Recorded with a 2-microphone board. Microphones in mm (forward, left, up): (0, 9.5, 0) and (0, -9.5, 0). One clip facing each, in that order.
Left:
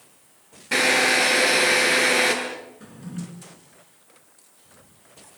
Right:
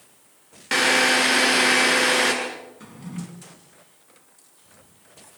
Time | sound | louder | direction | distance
0.7 | a drill | right 1 dB | 65° right (ahead or behind) | 7.5 m
2.8 | a drawer | even | 60° right (ahead or behind) | 4 m